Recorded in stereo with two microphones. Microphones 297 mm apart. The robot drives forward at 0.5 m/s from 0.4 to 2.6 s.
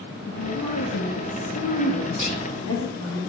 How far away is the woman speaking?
About 0.9 m.